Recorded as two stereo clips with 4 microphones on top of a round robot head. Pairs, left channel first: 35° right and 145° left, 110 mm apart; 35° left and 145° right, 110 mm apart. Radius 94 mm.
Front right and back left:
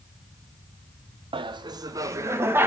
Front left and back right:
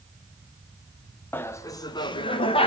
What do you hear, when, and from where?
1.3 s laughter: 105° left, 1.1 m; by 2.7 s 70° left, 1.8 m